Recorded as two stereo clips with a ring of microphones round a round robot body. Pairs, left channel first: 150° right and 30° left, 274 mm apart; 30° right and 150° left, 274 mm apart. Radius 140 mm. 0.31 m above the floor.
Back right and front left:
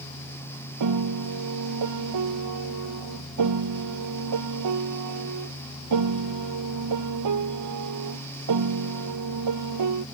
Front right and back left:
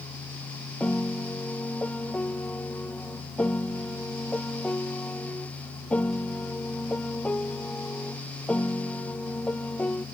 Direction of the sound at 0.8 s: 55° left.